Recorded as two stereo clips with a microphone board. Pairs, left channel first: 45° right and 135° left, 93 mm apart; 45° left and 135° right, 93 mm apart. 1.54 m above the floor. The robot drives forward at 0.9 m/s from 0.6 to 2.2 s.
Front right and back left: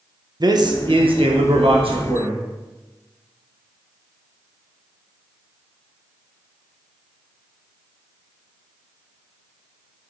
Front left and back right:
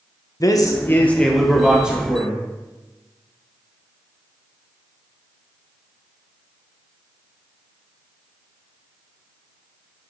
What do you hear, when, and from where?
0.4 s a man speaking: 95° left, 0.9 m; by 2.4 s 150° left, 1.8 m